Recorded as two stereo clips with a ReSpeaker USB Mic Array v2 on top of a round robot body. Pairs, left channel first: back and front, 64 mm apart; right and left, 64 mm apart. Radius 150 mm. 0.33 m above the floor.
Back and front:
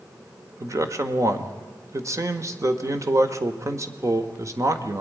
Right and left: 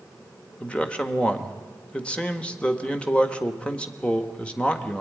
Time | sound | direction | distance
0.6 | a man speaking | 20° right | 1.7 m